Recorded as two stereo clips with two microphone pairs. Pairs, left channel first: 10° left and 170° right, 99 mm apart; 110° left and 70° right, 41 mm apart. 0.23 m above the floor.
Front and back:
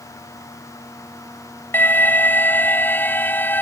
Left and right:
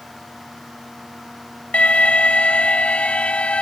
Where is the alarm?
70° left.